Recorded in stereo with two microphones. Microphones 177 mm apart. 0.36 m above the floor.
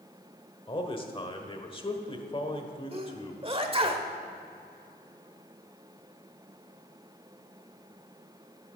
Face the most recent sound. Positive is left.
turn(degrees=-35)  # may be behind; listen again after turning